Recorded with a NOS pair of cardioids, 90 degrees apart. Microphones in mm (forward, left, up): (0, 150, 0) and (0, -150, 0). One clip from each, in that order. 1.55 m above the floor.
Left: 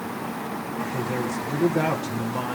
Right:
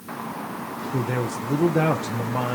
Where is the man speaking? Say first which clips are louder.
Right 2 dB; 40° right, 1.7 m.